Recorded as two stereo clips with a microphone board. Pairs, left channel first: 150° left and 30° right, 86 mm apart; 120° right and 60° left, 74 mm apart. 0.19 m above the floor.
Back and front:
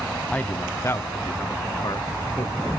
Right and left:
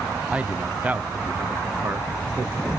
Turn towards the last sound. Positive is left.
turn(degrees=120)